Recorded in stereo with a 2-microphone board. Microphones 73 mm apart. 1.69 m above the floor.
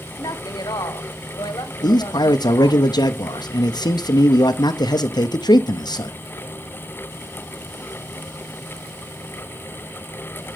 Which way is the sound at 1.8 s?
75° left (ahead or behind).